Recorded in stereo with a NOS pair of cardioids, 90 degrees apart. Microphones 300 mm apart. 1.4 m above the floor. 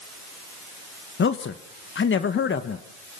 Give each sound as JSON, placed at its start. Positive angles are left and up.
{"t": 1.2, "sound": "a man speaking", "azimuth_deg": 40, "distance_m": 1.5}